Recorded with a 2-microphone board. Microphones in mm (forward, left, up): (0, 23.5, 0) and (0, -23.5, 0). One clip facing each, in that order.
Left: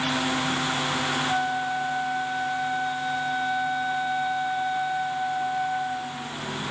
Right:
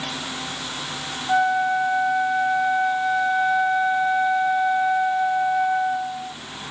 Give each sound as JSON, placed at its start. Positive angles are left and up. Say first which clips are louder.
{"t": 1.3, "sound": "a flute", "louder": "right 6 dB", "side_deg": -30}